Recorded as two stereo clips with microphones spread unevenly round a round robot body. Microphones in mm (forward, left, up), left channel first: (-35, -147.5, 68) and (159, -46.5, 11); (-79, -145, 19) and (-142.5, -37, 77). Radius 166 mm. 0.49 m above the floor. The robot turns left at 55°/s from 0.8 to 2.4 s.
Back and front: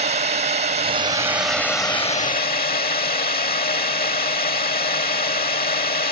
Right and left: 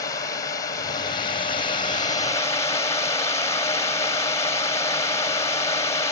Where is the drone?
15° right; by 6.1 s 105° right.